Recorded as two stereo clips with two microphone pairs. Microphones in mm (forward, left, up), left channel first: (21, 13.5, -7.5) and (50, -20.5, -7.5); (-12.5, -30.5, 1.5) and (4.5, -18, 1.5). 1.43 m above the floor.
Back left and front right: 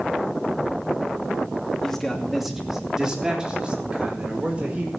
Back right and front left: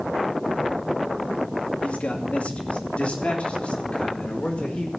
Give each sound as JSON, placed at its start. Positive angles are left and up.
{"t": 1.8, "sound": "a man speaking", "azimuth_deg": -150, "distance_m": 2.5}